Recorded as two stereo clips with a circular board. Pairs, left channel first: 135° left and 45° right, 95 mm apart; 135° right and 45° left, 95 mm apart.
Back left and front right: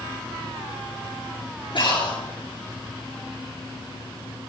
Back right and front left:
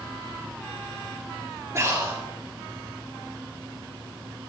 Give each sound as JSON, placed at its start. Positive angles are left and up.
{"t": 1.8, "sound": "breathing", "azimuth_deg": 105, "distance_m": 6.0}